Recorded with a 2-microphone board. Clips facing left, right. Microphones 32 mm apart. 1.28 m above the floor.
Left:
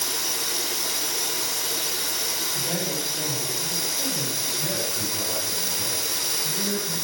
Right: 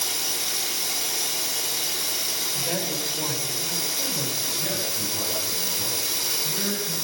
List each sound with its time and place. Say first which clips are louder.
0.0 s running water: even; 10° right (ahead or behind), 6.5 m
2.5 s a woman speaking: even; 20° right (ahead or behind), 7 m
4.6 s a man speaking: even; 20° right (ahead or behind), 9.5 m